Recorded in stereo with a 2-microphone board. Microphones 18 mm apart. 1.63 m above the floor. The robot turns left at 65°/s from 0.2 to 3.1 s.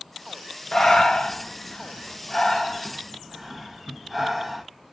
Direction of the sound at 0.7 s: 30° left (ahead or behind).